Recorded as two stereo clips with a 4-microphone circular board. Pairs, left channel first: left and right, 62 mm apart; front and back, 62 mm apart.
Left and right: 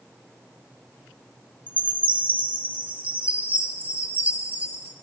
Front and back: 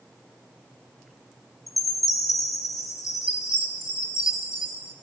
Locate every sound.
1.7 s a chime: 30° right, 7 m